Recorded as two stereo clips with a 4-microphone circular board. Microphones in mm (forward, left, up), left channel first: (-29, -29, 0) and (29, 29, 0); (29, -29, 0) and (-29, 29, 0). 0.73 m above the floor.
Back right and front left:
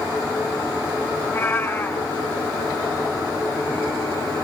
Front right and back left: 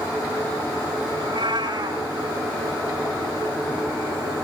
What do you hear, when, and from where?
1.2 s a cat meowing: 165° left, 4 m